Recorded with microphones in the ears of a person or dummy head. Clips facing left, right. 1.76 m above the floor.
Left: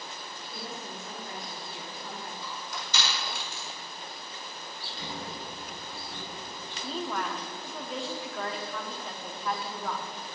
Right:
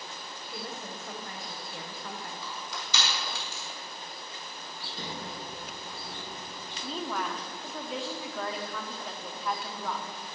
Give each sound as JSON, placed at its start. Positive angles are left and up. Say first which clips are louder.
{"t": 0.5, "sound": "a woman speaking", "louder": "right 1 dB", "side_deg": -55, "distance_m": 1.4}
{"t": 2.4, "sound": "crushing", "louder": "even", "side_deg": -65, "distance_m": 4.5}
{"t": 4.8, "sound": "a sliding door", "louder": "even", "side_deg": -45, "distance_m": 4.0}
{"t": 6.8, "sound": "a woman speaking", "louder": "left 1 dB", "side_deg": 0, "distance_m": 1.2}